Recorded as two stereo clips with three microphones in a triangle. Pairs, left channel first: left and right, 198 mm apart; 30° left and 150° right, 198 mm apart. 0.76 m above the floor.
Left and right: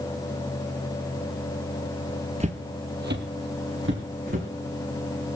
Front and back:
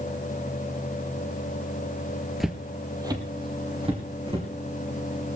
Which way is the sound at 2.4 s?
60° right.